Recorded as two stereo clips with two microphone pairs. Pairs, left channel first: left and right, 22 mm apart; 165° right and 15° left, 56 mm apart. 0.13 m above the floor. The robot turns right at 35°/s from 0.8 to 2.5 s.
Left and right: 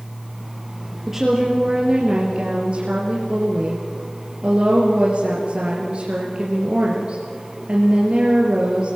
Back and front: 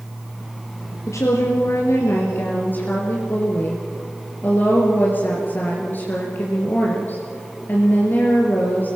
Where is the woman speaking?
170° right, 3 m; by 9.0 s 120° right, 3 m.